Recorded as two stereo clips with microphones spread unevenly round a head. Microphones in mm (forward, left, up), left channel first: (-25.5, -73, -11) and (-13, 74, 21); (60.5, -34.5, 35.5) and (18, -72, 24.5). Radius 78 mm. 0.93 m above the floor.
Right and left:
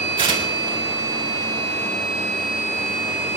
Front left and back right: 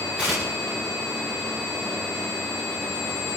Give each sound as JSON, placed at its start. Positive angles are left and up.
{"t": 0.2, "sound": "tearing paper", "azimuth_deg": 145, "distance_m": 3.5}